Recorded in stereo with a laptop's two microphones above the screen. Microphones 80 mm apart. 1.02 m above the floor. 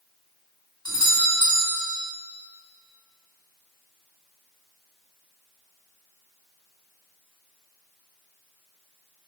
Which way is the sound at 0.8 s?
65° left (ahead or behind).